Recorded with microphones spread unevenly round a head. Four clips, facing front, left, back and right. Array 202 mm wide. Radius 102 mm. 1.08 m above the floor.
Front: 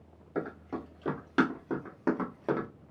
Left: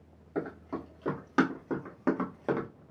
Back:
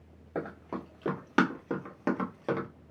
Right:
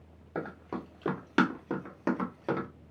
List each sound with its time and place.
0.3 s running footsteps: 125° right, 1.6 m; by 2.7 s 45° right, 1.0 m